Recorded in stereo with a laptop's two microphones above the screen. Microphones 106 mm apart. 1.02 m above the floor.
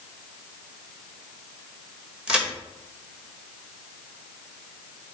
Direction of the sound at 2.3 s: 10° right (ahead or behind).